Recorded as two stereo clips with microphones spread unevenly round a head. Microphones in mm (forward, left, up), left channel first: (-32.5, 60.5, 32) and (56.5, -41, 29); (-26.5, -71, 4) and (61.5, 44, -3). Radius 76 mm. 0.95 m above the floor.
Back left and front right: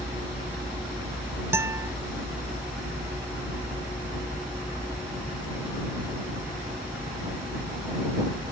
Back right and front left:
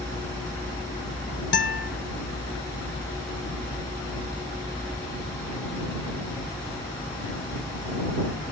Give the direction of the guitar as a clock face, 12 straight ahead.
4 o'clock.